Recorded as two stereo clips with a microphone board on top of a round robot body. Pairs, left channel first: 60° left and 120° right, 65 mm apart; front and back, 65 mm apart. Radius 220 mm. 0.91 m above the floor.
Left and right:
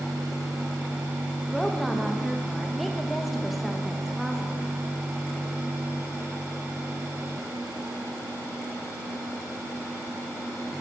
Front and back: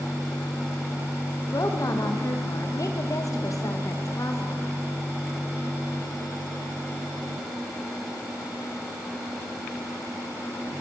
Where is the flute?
No flute in this recording.